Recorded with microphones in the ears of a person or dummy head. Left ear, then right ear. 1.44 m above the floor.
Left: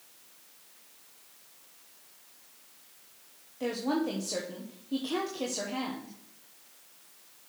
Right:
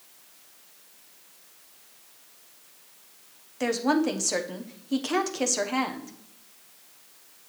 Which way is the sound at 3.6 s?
55° right (ahead or behind).